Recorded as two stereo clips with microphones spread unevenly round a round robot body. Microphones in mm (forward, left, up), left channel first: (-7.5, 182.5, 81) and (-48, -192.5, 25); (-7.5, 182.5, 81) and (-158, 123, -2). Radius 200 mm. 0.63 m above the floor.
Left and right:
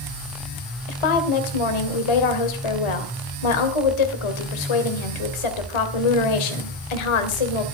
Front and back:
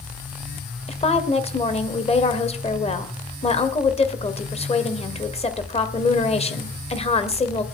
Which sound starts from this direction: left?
A woman speaking, at 0.9 s.